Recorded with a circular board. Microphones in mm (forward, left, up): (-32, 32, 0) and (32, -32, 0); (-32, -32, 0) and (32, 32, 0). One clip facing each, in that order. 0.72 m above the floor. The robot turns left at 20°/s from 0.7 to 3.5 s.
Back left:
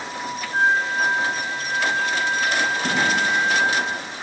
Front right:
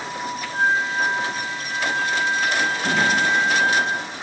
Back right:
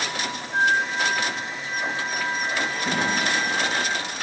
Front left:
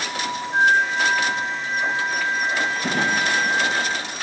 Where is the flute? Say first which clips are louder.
Back left 1 dB, front left 4 dB; 105° left, 3.5 m; by 3.8 s 50° left, 3.5 m.